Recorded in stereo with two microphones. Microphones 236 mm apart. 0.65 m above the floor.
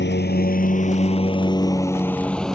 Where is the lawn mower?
50° left (ahead or behind); by 2.5 s centre (ahead or behind).